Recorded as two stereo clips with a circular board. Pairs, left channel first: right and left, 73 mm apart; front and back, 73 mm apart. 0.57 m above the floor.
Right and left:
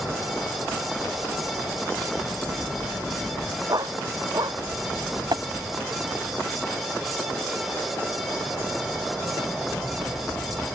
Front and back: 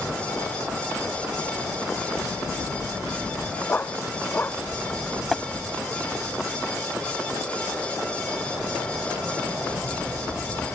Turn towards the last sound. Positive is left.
turn(degrees=85)